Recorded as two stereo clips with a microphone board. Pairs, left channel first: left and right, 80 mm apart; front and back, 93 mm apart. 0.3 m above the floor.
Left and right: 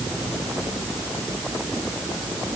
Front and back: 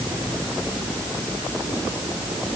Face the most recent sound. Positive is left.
No sound to turn to.